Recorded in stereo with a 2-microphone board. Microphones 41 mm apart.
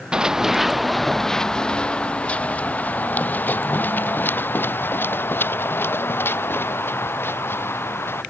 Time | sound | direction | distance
0.1 | running footsteps | 20° right (ahead or behind) | ?